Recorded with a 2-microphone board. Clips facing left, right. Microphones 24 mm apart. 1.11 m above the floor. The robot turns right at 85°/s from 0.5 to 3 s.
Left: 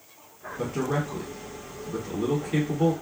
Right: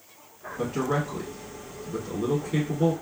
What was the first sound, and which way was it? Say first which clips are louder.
A man speaking: right 1 dB; 65° right (ahead or behind).